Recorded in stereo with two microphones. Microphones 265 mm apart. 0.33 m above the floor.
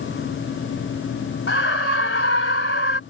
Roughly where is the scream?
Left.